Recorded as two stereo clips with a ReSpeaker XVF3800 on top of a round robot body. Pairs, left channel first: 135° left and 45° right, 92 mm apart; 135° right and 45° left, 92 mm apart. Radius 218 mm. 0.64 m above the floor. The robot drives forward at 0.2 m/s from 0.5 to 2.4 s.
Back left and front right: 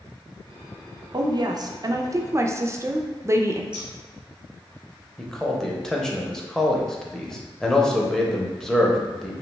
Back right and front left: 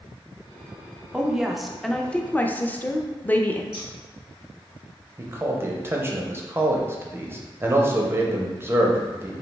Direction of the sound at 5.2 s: 55° left.